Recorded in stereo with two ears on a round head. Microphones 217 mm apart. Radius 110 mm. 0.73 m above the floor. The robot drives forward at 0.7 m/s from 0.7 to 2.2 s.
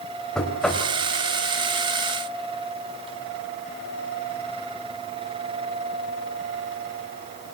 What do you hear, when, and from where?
0.3 s knocking: 5° left (ahead or behind), 3.5 m